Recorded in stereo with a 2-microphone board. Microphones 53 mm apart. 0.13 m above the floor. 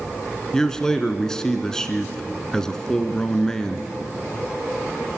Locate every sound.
0.5 s a man speaking: 10° left (ahead or behind), 1.3 m